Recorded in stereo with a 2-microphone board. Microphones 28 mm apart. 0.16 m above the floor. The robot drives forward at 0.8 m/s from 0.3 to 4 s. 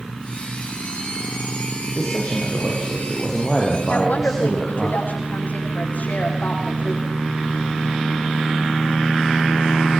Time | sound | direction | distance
2.0 | a man speaking | centre (ahead or behind) | 9 m
3.9 | a woman speaking | 65° left (ahead or behind) | 9.5 m